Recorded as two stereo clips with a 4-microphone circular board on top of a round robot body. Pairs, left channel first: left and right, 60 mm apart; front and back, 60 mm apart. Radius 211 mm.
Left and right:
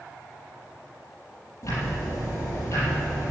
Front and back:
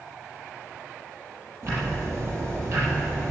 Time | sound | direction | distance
1.6 | ticking | 135° left | 6 m